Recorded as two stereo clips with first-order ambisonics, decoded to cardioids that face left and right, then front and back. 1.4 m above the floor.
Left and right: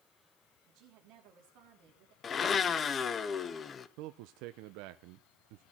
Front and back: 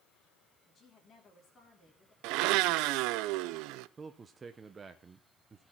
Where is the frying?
No frying in this recording.